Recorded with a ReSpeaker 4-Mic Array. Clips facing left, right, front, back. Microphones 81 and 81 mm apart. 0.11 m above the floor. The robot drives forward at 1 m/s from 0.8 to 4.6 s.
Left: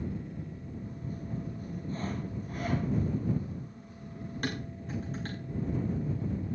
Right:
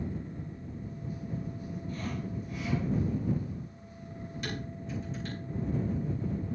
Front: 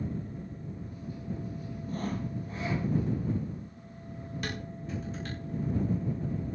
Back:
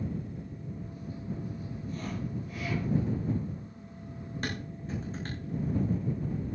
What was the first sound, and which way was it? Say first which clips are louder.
Sawing: left 1 dB, front 3 dB; 35° left.